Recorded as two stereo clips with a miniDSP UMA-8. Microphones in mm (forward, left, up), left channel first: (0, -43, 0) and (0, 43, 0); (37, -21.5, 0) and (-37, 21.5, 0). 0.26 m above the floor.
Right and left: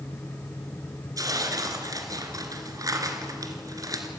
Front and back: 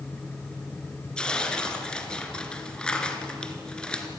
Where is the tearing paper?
50° left, 2 m.